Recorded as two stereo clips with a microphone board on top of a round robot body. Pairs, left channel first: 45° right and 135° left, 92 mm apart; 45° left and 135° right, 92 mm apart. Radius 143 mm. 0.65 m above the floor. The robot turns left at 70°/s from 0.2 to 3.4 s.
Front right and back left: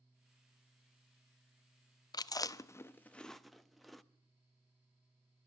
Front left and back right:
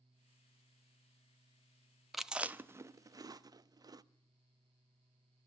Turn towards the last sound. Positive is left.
turn(degrees=-135)